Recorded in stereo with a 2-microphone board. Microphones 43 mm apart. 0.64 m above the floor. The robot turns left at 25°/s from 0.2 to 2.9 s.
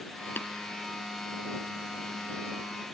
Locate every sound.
0.4 s tapping: 55° left (ahead or behind); by 0.5 s 60° left (ahead or behind)